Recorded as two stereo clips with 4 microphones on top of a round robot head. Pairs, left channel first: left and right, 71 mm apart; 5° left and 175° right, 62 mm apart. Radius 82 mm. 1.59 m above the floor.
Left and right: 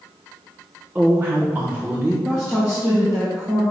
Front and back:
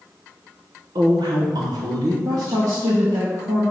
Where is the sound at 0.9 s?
165° right, 1.2 m.